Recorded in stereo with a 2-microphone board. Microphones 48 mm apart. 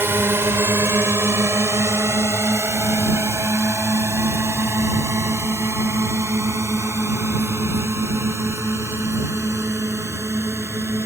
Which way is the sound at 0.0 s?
60° right (ahead or behind).